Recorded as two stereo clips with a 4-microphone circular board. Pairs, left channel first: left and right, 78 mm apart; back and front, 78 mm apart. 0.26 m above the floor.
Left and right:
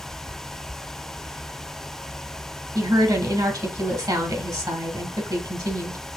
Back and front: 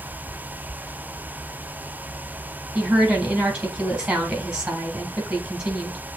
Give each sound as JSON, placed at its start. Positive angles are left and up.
{"t": 2.8, "sound": "a woman speaking", "azimuth_deg": -75, "distance_m": 1.9}